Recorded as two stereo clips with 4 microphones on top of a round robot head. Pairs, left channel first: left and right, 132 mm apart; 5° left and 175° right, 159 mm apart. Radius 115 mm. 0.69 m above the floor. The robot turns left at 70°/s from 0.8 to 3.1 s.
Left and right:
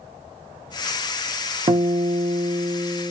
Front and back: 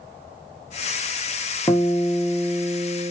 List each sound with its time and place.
1.7 s a guitar: 65° right, 0.8 m; by 3.1 s 165° right, 0.8 m